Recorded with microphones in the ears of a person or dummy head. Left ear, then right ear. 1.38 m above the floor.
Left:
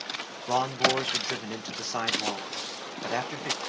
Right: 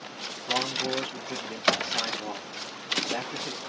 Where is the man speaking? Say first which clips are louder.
Left 3 dB; 65° left (ahead or behind), 0.9 m.